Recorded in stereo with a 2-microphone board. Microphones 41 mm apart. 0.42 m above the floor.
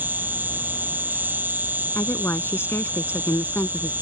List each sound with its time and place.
0.0 s an insect: 55° right (ahead or behind)
1.9 s a woman speaking: 75° left (ahead or behind)